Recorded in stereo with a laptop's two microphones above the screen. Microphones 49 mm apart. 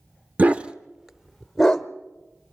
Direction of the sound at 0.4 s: 30° right (ahead or behind).